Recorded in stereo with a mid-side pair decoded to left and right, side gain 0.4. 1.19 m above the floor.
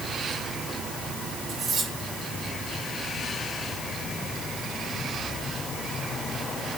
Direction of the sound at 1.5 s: 60° right.